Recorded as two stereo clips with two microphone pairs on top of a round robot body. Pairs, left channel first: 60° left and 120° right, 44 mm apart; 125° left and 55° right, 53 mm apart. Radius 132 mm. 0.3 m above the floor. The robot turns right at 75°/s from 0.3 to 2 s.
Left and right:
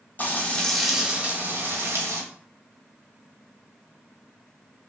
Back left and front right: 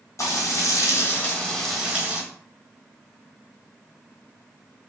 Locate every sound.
0.2 s frying: 110° left, 1.4 m; by 2.2 s 125° right, 1.4 m